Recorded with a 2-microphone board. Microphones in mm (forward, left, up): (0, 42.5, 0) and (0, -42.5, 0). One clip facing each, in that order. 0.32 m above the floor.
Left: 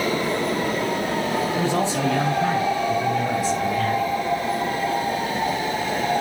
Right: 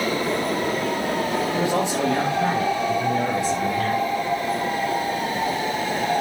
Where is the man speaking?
15° right (ahead or behind), 6.5 m; by 4.1 s 25° right (ahead or behind), 7 m.